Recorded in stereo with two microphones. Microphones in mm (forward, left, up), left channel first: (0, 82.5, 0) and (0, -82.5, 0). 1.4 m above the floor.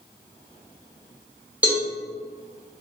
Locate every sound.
1.6 s a cowbell: 10° right (ahead or behind), 0.9 m